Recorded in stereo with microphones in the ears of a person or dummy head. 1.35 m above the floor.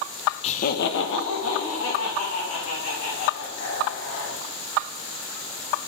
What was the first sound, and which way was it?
Laughter, 35° left (ahead or behind).